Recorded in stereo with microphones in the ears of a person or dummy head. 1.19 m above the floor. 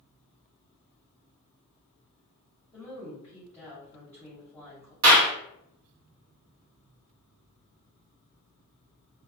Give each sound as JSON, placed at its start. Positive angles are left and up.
{"t": 2.7, "sound": "a woman speaking", "side_deg": 10, "distance_m": 0.9}
{"t": 5.0, "sound": "a clap", "side_deg": -75, "distance_m": 1.1}